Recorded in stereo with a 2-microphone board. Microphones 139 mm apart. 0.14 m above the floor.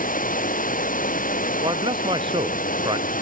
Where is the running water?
75° left (ahead or behind).